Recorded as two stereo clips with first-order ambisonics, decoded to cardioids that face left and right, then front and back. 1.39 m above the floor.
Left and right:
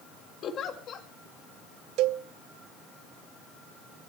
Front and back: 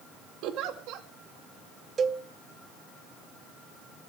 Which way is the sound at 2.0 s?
115° right.